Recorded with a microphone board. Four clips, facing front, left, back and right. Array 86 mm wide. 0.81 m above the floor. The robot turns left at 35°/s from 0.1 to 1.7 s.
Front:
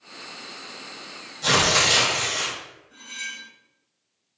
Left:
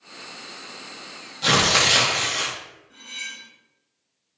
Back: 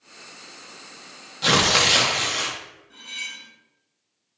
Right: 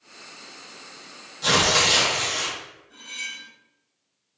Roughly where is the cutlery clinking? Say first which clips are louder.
Even, front 2 dB; behind.